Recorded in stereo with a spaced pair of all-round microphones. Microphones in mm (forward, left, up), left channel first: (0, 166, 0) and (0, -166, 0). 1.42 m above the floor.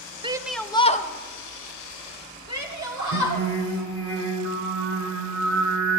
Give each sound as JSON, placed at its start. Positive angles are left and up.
{"t": 0.2, "sound": "a shout", "side_deg": -15, "distance_m": 0.5}
{"t": 3.1, "sound": "singing", "side_deg": 35, "distance_m": 1.8}